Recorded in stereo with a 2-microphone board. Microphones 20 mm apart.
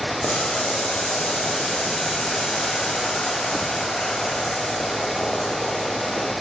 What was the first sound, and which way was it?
Boiling, 70° left (ahead or behind).